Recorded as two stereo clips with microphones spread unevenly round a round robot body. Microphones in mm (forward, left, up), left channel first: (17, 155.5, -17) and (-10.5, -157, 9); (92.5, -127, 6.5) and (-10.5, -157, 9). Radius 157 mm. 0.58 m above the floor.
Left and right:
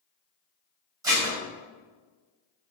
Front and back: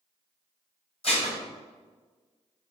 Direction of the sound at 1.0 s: 15° right.